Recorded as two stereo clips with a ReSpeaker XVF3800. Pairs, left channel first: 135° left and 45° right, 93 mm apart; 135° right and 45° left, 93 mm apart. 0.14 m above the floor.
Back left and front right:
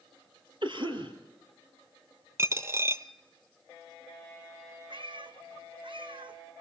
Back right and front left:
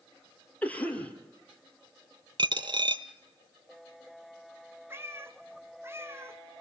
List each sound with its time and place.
0.6 s a cough: 60° right, 4 m
2.4 s a dropped coin: 15° left, 0.9 m
4.9 s a cat meowing: 20° right, 1.3 m